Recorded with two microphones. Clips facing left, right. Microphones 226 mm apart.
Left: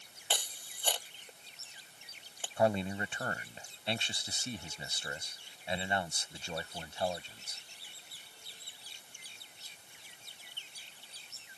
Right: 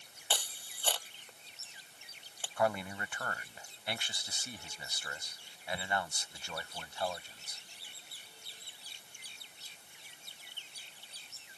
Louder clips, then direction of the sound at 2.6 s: Left 3 dB; 25° left (ahead or behind).